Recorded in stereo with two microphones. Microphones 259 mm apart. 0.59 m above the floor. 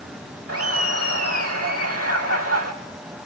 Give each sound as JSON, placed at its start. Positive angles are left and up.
{"t": 0.5, "sound": "laughter", "side_deg": -60, "distance_m": 1.8}